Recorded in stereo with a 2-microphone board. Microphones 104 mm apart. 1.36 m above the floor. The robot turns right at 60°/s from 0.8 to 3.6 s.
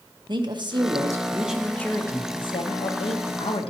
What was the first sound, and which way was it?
A woman speaking, 50° right.